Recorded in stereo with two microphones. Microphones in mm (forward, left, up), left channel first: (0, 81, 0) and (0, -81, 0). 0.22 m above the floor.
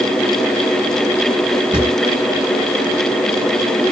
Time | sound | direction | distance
1.7 | a drawer | 30° right (ahead or behind) | 2.5 m